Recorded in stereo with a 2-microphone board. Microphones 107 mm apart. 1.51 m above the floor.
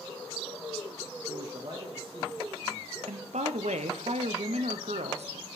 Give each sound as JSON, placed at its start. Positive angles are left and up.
{"t": 1.3, "sound": "a man speaking", "side_deg": -35, "distance_m": 0.5}
{"t": 3.1, "sound": "a woman speaking", "side_deg": -90, "distance_m": 0.6}